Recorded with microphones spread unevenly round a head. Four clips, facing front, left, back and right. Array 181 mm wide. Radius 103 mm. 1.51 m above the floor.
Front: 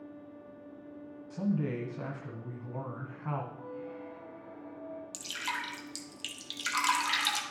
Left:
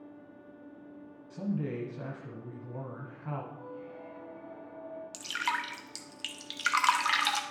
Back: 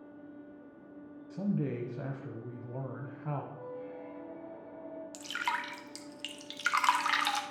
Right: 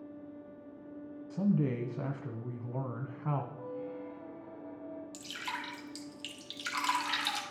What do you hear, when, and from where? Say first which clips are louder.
1.3 s a man speaking: right 4 dB, front 1 dB; 105° right, 0.9 m
3.5 s a squeak: right 3 dB, even; 145° right, 2.5 m
5.1 s dripping: left 7 dB, back 5 dB; 110° left, 0.9 m